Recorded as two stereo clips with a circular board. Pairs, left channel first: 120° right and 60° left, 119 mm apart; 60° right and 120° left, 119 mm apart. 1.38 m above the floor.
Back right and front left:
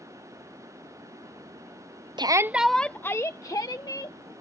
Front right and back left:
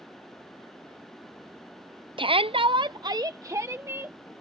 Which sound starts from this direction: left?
A shout, at 2.2 s.